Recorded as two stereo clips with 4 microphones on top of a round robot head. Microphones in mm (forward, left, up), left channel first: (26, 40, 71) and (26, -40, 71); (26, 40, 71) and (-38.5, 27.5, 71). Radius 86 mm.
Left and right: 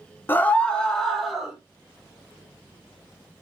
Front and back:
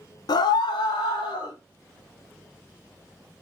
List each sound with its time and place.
0.3 s a scream: 25° left, 0.6 m; by 1.6 s straight ahead, 1.2 m